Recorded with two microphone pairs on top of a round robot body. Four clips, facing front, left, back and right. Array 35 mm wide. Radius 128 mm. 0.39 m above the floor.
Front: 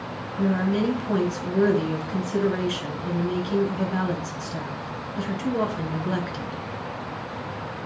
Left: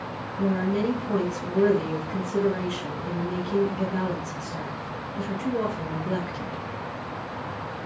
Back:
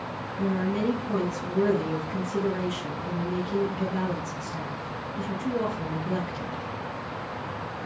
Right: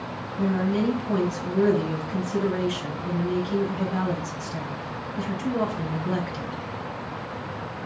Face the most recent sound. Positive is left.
turn(degrees=-20)